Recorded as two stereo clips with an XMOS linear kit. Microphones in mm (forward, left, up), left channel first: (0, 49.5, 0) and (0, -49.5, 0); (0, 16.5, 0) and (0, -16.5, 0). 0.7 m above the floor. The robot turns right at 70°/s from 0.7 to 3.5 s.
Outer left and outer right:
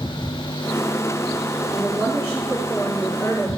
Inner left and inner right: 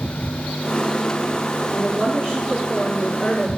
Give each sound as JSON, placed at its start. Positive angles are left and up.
{"t": 1.7, "sound": "a woman speaking", "azimuth_deg": -95, "distance_m": 1.5}